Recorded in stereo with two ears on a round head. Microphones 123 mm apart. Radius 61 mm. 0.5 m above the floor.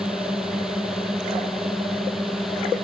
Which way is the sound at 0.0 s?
5° right (ahead or behind).